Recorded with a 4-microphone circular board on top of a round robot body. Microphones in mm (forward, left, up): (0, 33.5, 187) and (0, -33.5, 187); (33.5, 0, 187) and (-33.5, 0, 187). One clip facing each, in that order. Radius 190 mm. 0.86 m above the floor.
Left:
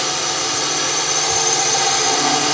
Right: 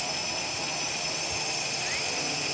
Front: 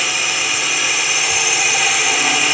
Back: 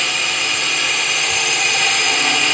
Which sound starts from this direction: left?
A drone, at 0.0 s.